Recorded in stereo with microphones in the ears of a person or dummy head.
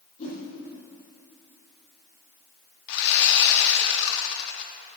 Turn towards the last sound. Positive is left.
turn(degrees=60)  # may be behind; listen again after turning